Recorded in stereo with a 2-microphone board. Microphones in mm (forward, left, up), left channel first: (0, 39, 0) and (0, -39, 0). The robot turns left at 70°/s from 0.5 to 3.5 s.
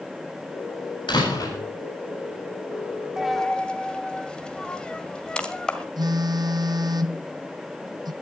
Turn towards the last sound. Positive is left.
turn(degrees=-60)  # may be behind; listen again after turning